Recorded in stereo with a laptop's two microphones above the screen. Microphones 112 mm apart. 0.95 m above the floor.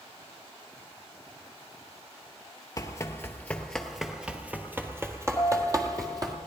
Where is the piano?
25° left (ahead or behind), 4 m.